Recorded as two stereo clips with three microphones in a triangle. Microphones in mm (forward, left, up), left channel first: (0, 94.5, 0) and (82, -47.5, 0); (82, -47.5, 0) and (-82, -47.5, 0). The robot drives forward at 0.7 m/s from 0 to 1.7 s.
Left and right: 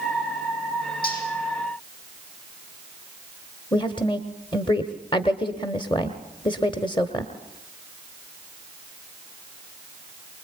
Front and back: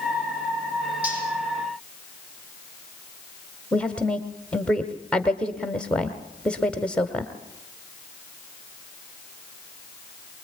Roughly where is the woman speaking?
Left.